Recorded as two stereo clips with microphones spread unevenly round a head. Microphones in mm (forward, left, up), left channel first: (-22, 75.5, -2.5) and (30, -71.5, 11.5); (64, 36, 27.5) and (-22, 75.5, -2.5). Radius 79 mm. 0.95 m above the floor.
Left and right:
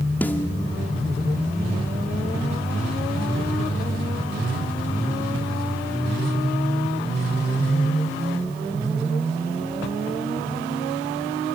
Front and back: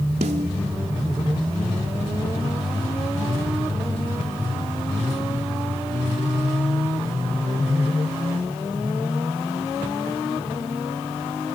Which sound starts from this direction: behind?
A snare drum, at 0.2 s.